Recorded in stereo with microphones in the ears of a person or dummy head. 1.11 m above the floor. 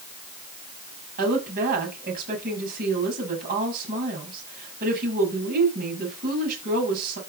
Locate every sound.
1.2 s a woman speaking: 50° right (ahead or behind), 6.5 m